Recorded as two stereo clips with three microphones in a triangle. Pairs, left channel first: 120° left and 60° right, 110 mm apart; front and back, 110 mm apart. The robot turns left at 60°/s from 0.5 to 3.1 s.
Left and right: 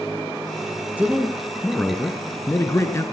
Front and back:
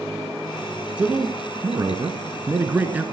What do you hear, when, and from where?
1.0 s a man speaking: 115° right, 1.4 m; by 3.0 s 120° left, 1.4 m